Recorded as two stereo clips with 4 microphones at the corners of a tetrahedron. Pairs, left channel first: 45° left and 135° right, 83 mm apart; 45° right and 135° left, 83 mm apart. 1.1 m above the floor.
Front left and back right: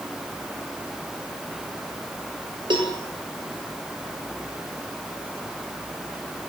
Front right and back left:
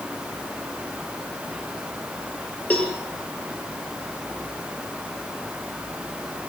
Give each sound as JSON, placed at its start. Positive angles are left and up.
{"t": 2.7, "sound": "a cowbell", "azimuth_deg": -115, "distance_m": 4.5}